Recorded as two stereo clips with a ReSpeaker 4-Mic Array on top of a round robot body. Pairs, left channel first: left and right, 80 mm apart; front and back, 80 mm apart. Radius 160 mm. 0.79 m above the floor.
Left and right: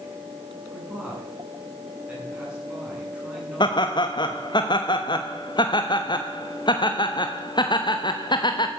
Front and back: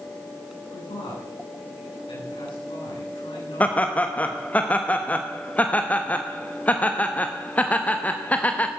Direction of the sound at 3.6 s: 70° left.